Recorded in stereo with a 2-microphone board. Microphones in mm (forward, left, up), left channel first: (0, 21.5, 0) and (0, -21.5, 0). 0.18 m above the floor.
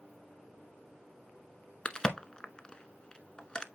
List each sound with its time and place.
1.9 s a crack: 20° left (ahead or behind), 0.8 m